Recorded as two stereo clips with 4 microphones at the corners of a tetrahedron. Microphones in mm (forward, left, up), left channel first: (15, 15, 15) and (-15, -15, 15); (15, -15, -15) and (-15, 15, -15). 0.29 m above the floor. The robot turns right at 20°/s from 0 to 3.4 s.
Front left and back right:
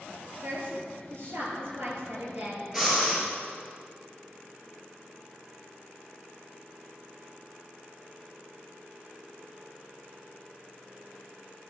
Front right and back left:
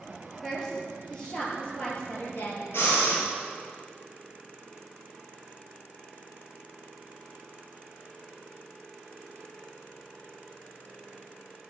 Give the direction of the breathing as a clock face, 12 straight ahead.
2 o'clock.